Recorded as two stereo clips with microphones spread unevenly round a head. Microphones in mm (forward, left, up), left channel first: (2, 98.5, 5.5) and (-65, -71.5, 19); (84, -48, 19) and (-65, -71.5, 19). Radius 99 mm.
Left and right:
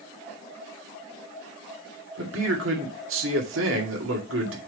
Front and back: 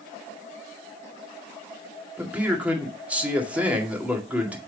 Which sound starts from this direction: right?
A man speaking, at 2.2 s.